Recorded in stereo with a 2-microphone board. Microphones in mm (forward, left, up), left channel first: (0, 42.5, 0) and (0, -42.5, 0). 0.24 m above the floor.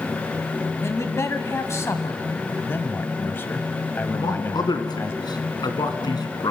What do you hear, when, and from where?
0.8 s a man speaking: 35° left (ahead or behind), 1.7 m
2.6 s a man speaking: 25° left (ahead or behind), 1.1 m
4.1 s a man speaking: 60° left (ahead or behind), 2 m